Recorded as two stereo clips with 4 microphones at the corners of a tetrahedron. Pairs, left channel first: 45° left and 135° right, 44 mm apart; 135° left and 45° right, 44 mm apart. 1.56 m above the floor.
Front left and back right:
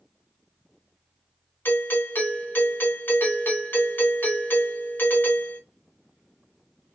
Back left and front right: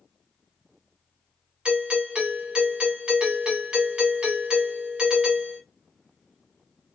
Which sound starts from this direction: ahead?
A doorbell, at 1.6 s.